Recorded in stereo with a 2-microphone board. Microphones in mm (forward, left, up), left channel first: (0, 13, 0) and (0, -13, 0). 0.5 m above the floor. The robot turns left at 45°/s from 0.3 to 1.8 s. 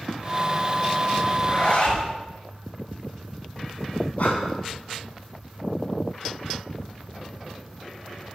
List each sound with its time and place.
1.3 s a zipper: 30° left (ahead or behind), 6 m; by 2.1 s 50° left (ahead or behind), 6 m
4.2 s breathing: 60° left (ahead or behind), 5 m